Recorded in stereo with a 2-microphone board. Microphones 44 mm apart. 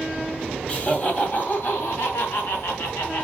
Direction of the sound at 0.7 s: 30° left (ahead or behind).